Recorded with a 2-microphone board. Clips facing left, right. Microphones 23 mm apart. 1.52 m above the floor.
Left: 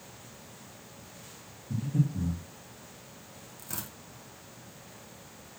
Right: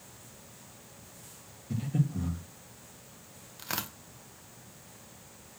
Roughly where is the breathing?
Right.